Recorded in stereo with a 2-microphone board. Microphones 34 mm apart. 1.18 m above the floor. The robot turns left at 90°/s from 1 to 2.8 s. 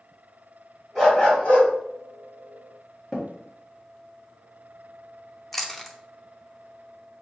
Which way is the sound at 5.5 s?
10° left (ahead or behind).